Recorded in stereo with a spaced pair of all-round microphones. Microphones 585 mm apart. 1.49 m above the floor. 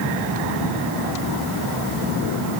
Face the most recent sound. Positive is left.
No sound to turn to.